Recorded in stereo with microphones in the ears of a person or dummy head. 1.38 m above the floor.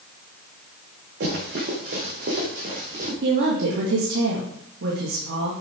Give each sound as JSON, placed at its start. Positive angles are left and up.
{"t": 1.2, "sound": "running footsteps", "side_deg": -60, "distance_m": 5.0}
{"t": 3.2, "sound": "a woman speaking", "side_deg": -65, "distance_m": 1.9}